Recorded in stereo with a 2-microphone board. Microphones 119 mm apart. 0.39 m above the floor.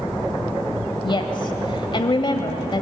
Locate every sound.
1.0 s a woman speaking: 40° left (ahead or behind), 1.8 m